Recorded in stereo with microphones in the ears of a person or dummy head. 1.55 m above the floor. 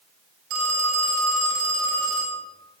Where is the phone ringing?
75° right (ahead or behind), 4 m.